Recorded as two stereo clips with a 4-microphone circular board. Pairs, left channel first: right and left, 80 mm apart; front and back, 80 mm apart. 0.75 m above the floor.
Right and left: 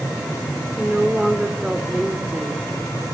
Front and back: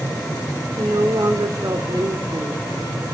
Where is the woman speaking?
165° left, 2 m.